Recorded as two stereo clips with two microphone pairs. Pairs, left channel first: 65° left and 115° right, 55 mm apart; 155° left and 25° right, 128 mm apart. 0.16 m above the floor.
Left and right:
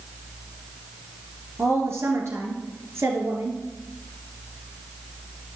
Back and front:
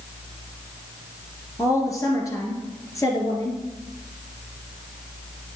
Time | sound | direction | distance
1.6 | a woman speaking | 140° right | 2.5 m